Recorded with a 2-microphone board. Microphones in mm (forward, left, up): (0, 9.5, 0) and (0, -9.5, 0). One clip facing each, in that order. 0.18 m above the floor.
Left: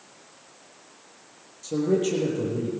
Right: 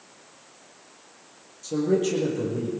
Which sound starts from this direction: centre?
A man speaking, at 1.6 s.